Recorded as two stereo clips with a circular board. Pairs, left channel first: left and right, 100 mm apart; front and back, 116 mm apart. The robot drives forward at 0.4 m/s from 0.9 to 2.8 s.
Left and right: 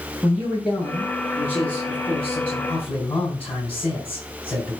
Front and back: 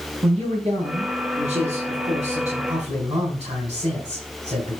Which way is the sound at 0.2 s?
165° left.